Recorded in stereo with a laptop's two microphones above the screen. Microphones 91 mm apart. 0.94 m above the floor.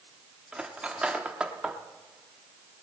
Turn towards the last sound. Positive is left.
turn(degrees=-10)  # may be behind; listen again after turning